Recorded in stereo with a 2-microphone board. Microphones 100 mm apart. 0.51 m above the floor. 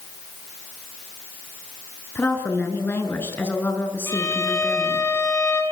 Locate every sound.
2.1 s a woman speaking: 20° left (ahead or behind), 5.5 m
4.1 s a violin: 30° left (ahead or behind), 6 m